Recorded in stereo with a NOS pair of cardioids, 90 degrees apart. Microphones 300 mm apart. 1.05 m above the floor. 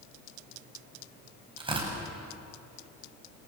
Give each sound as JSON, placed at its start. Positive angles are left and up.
{"t": 1.6, "sound": "tearing paper", "azimuth_deg": -15, "distance_m": 7.5}